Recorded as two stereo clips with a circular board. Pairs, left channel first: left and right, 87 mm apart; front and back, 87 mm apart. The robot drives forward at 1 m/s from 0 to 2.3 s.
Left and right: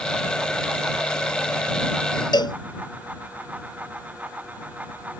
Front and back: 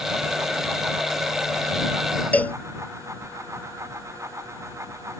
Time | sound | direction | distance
2.3 | a cowbell | 70° left | ?